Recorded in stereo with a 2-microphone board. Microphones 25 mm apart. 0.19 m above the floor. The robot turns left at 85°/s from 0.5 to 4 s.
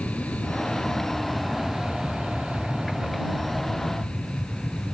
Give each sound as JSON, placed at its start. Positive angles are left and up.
{"t": 0.0, "sound": "an aircraft", "azimuth_deg": 70}